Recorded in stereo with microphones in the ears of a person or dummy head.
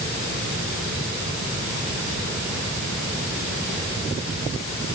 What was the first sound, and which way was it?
Only background noise.